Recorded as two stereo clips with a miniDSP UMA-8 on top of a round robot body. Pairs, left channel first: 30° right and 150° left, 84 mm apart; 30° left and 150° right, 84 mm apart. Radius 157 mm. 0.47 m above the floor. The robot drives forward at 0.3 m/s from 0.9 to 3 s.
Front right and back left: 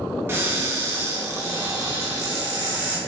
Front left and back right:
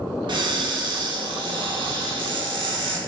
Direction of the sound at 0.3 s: 155° right.